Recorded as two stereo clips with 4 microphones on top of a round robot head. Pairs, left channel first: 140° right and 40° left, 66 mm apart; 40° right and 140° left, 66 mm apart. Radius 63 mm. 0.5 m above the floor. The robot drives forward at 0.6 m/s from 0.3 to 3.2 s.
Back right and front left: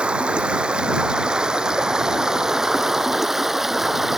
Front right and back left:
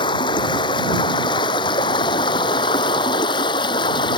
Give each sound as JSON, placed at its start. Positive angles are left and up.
{"t": 0.0, "sound": "running water", "azimuth_deg": -35}